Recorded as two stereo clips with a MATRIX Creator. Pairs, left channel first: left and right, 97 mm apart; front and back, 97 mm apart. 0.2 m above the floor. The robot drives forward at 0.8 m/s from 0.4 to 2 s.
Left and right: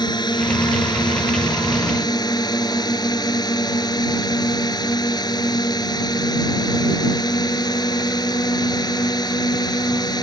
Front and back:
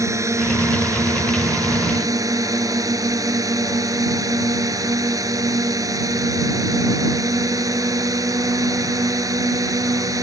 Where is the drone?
125° left; by 10.2 s 130° left.